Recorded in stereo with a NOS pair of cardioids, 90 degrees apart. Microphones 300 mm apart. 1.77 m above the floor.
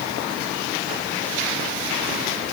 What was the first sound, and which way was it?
Only background noise.